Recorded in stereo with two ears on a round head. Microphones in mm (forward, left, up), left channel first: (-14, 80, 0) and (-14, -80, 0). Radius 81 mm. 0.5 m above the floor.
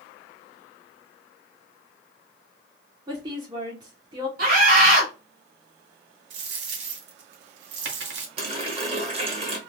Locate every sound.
3.1 s a woman speaking: 25° right (ahead or behind), 1.0 m
4.4 s a scream: 55° right (ahead or behind), 2 m
6.3 s a dropped coin: 65° right (ahead or behind), 0.8 m
8.4 s a running tap: 30° right (ahead or behind), 1.0 m